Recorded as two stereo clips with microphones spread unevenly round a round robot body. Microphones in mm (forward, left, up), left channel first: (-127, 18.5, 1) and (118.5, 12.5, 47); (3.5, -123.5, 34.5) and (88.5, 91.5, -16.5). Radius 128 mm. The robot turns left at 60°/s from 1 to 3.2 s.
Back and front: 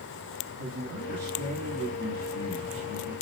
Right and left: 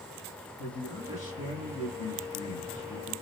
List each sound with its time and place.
0.6 s a man speaking: 35° right, 1.7 m; by 3.1 s 165° right, 1.7 m